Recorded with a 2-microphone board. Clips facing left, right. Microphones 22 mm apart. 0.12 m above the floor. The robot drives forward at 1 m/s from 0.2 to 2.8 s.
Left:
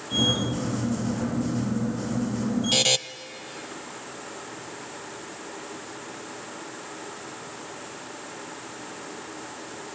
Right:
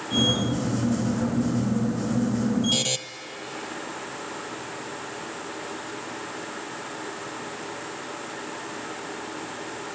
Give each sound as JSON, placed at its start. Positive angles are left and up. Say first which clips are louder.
{"t": 2.7, "sound": "a buzzer", "louder": "left 4 dB", "side_deg": 20, "distance_m": 0.6}